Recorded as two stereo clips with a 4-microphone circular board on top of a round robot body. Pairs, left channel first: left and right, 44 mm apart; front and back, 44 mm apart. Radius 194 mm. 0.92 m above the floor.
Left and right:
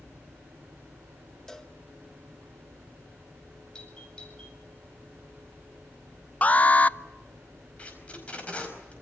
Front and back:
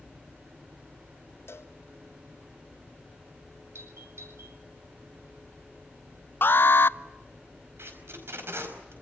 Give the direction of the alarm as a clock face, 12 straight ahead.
11 o'clock.